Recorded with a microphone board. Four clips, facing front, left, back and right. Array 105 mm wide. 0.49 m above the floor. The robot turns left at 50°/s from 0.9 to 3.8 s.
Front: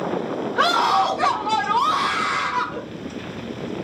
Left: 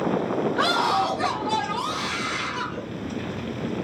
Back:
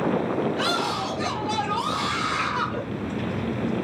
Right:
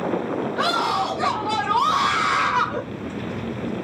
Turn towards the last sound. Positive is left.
turn(degrees=-135)